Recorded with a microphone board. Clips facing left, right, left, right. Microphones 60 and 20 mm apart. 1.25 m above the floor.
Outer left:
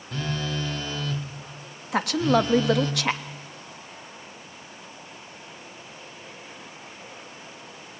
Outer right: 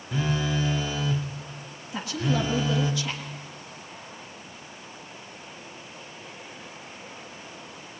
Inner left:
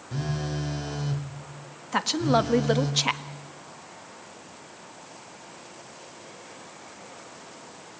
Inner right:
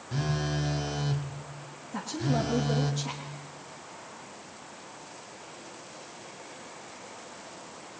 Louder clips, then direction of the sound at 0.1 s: Outer right 3 dB, even; 10° right (ahead or behind).